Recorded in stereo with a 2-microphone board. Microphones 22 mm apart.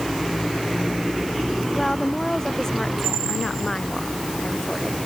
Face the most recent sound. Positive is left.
turn(degrees=25)  # may be behind; listen again after turning